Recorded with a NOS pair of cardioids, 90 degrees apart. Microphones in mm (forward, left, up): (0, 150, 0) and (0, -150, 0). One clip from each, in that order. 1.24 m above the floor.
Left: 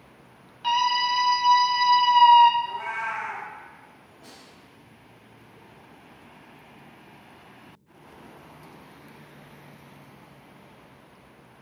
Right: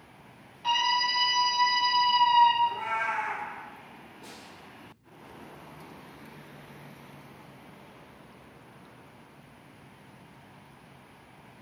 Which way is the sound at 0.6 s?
35° left.